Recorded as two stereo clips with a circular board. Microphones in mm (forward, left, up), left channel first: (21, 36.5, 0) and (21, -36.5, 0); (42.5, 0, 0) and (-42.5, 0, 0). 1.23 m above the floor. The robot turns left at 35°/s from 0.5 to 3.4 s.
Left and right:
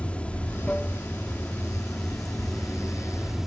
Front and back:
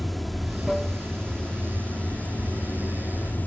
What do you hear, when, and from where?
0.0 s running water: 90° left, 0.7 m; by 3.5 s 10° right, 0.7 m